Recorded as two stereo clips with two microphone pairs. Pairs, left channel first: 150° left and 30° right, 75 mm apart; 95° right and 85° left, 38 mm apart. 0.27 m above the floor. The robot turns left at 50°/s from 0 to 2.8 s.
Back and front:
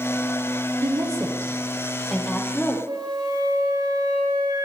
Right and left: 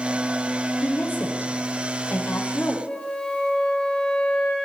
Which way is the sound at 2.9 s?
30° right.